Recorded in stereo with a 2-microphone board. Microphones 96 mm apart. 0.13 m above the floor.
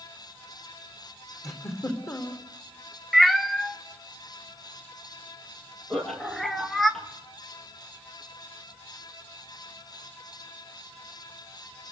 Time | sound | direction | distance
1.4 | a giggle | 30° left (ahead or behind) | 3.5 m
3.1 | a cat meowing | centre (ahead or behind) | 1.1 m
5.9 | laughter | 5° left (ahead or behind) | 4 m